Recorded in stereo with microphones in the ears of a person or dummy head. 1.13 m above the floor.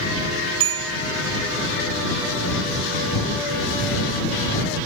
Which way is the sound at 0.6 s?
85° right.